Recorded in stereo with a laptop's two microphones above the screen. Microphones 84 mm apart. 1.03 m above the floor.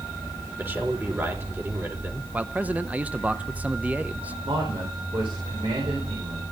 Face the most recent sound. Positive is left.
turn(degrees=-80)